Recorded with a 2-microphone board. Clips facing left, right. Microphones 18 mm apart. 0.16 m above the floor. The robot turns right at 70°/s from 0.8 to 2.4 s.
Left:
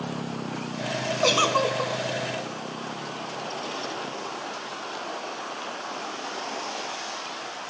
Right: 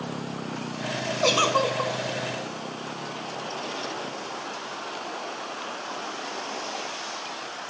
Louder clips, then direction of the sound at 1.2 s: Even; 160° left.